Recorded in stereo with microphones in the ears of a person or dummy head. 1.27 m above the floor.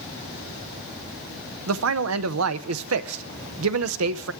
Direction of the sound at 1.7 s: 80° right.